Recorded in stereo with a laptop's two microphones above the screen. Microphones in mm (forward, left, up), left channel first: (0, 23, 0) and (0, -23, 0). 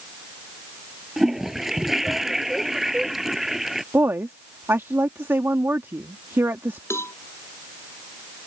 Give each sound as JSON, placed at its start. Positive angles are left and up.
{"t": 1.2, "sound": "a toilet flushing", "side_deg": -10}
{"t": 3.9, "sound": "a woman speaking", "side_deg": -70}
{"t": 6.9, "sound": "a cowbell", "side_deg": 90}